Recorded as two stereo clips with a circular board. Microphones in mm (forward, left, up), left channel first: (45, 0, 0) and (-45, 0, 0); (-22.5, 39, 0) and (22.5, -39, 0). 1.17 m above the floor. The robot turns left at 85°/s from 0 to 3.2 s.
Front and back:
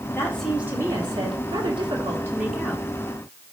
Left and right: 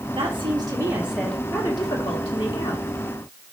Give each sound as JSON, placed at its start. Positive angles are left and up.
{"t": 0.1, "sound": "a woman speaking", "azimuth_deg": -65, "distance_m": 2.0}